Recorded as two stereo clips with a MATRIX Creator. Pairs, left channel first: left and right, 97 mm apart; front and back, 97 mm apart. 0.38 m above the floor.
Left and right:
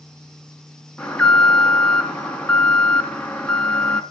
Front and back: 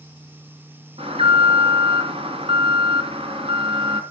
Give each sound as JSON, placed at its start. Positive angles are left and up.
{"t": 1.0, "sound": "an alarm", "azimuth_deg": 170, "distance_m": 3.0}